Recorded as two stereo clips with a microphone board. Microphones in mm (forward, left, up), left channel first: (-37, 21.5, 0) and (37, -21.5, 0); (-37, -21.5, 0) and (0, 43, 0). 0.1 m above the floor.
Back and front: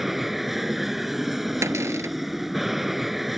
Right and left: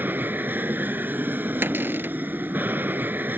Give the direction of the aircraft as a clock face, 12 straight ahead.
10 o'clock.